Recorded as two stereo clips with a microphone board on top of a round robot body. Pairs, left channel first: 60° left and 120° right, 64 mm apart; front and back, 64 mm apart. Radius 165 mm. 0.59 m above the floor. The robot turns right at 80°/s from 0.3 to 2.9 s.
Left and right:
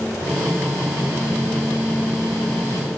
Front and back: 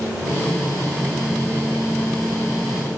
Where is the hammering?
No hammering in this recording.